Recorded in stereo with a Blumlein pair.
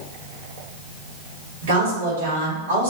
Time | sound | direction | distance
1.6 | a woman speaking | 60° right | 1.7 m